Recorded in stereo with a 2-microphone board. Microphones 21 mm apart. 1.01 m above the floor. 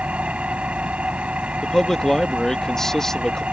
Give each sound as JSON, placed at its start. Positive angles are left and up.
{"t": 0.0, "sound": "an engine running", "side_deg": -80}
{"t": 1.6, "sound": "a man speaking", "side_deg": 30}